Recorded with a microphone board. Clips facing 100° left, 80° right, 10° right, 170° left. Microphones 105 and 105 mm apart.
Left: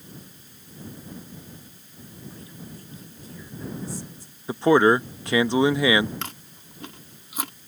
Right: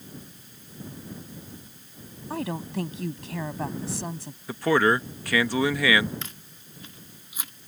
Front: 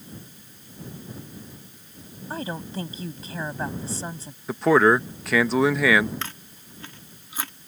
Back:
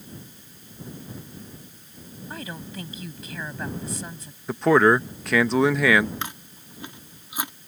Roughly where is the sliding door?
No sliding door in this recording.